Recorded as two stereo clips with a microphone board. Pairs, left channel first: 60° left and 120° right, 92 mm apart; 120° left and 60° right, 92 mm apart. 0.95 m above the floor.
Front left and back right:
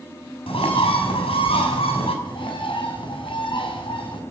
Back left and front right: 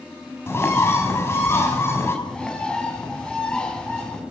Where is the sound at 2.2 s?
40° left, 4.5 m.